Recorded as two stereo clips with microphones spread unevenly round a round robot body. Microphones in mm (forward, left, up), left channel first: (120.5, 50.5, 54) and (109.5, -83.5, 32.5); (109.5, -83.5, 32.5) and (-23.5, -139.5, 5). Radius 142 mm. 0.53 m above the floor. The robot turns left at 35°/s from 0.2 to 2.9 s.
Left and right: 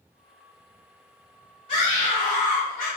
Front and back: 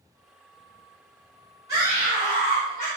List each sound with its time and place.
1.7 s a scream: 130° left, 2.5 m; by 2.9 s 85° left, 2.5 m